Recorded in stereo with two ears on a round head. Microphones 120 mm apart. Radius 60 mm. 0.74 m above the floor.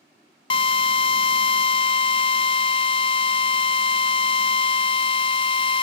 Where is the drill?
40° left (ahead or behind), 0.6 m.